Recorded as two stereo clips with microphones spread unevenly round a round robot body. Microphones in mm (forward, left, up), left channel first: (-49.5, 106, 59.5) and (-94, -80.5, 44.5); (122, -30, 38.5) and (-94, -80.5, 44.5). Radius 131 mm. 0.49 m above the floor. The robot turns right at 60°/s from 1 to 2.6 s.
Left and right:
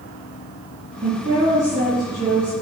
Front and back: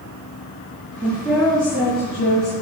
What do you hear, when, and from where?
1.0 s a woman speaking: 90° right, 7 m; by 2.5 s straight ahead, 7 m